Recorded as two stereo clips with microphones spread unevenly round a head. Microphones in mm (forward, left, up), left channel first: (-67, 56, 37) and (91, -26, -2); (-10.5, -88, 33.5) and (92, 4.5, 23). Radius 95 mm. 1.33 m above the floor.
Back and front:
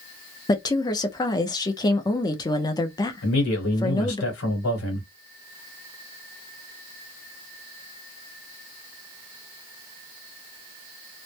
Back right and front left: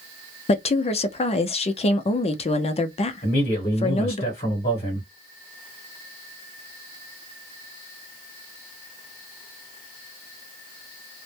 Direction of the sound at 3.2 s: 170° left.